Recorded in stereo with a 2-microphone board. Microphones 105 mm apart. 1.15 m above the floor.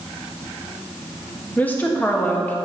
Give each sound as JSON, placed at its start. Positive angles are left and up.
{"t": 1.6, "sound": "a woman speaking", "side_deg": 15, "distance_m": 1.6}